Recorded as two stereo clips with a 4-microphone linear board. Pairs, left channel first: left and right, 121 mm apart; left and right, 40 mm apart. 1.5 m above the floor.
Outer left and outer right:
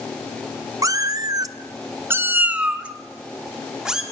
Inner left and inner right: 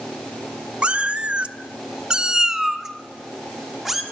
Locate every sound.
0.8 s a cat meowing: 30° right (ahead or behind), 0.9 m; by 4.0 s 5° right (ahead or behind), 2.5 m